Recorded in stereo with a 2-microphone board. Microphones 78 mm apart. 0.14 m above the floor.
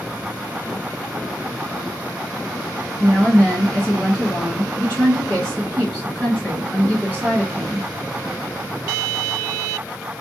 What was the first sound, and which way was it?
A woman speaking, 15° left (ahead or behind).